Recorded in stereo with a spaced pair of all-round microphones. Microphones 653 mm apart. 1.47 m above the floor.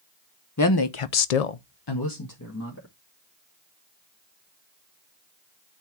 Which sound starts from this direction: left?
A woman speaking, at 0.6 s.